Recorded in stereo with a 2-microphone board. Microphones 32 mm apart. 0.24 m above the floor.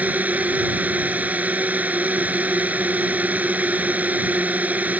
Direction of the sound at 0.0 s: 55° right (ahead or behind).